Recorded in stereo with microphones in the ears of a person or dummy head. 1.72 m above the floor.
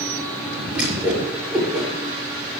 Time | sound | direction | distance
0.7 | a whoosh | 10° right (ahead or behind) | 6.5 m